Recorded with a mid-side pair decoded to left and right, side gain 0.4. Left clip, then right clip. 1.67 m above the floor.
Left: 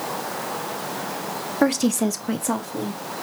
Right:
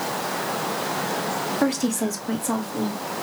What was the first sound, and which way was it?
A woman speaking, 40° left.